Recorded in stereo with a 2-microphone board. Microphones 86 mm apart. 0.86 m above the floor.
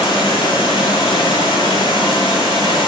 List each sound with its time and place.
0.0 s running water: 75° left (ahead or behind), 8.5 m